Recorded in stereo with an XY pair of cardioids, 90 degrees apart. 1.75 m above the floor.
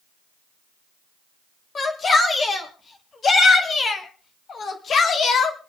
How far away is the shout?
About 5.5 m.